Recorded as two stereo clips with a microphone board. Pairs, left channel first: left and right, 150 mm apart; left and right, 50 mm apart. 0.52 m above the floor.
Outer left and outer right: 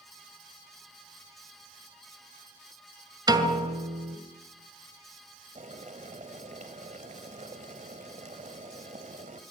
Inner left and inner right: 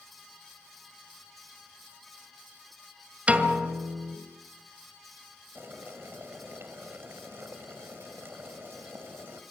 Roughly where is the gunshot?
I don't hear a gunshot.